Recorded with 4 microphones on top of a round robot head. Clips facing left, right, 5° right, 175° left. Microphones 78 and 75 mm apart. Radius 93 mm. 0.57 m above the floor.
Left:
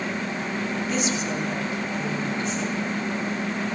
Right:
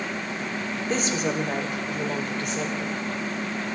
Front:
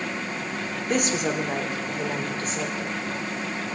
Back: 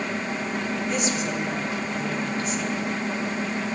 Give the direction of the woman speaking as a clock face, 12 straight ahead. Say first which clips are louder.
Right 4 dB, front 6 dB; 1 o'clock.